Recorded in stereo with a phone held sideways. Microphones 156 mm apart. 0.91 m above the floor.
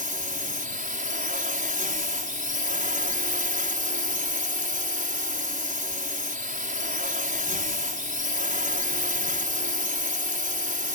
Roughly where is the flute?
I don't hear a flute.